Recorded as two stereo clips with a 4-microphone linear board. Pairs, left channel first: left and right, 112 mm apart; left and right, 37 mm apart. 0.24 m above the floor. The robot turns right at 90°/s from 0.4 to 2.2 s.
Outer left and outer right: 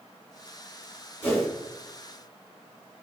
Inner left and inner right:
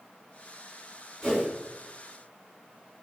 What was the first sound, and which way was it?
A whoosh, 15° left (ahead or behind).